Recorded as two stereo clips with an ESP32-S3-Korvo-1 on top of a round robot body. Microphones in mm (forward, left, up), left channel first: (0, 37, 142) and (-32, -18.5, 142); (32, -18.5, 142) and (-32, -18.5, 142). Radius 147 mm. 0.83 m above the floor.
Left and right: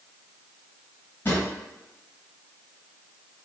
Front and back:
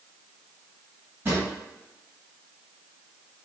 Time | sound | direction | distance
1.2 | a drawer | 115° left | 1.3 m